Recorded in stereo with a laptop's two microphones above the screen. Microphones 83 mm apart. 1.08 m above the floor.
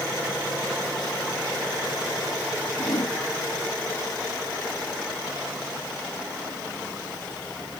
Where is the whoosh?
65° left (ahead or behind), 1.4 m.